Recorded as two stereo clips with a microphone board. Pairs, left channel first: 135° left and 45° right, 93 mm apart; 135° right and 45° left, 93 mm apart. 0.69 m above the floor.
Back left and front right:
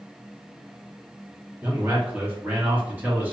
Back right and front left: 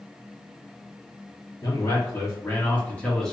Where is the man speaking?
110° right, 1.5 m; by 3.3 s 60° right, 1.0 m.